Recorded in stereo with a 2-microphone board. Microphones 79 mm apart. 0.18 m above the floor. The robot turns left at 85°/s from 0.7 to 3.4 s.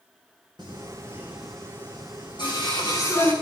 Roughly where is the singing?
Right.